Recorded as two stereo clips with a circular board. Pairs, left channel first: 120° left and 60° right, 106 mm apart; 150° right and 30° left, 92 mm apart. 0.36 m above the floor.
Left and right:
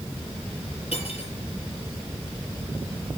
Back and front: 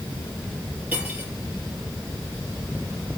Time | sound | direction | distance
0.9 | cutlery clinking | 100° left | 5 m